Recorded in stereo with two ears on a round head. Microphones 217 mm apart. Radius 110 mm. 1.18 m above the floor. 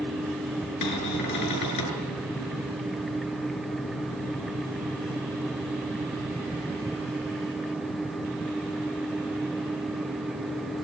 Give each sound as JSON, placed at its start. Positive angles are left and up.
{"t": 0.8, "sound": "a cupboard door", "side_deg": 85, "distance_m": 6.5}